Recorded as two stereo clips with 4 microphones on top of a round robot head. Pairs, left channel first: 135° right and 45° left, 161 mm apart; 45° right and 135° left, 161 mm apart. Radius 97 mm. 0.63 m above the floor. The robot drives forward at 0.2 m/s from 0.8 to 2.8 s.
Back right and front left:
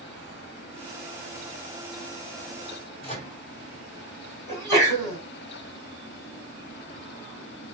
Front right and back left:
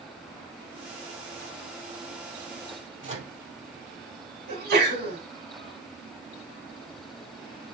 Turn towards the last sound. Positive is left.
turn(degrees=150)